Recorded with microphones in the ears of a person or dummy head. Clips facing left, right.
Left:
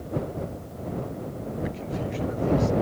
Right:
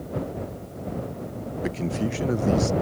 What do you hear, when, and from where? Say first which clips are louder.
1.6 s a man speaking: right 7 dB; 60° right (ahead or behind)